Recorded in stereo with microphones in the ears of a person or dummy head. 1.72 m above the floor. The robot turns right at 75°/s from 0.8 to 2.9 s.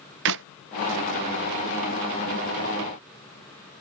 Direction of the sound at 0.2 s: 55° right (ahead or behind).